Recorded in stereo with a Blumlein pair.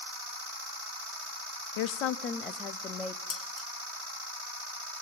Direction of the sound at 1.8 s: 50° left.